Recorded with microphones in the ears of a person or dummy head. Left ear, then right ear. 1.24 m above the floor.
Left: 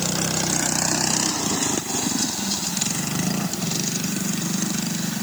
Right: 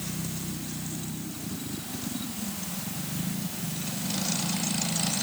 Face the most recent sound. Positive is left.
No sound to turn to.